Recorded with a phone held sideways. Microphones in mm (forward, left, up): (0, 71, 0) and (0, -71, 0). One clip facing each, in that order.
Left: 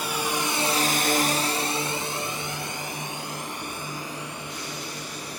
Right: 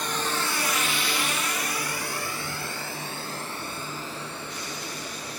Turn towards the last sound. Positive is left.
turn(degrees=15)  # may be behind; listen again after turning